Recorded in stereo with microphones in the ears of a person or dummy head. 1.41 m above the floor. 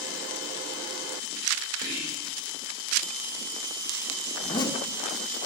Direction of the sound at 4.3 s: 25° left (ahead or behind).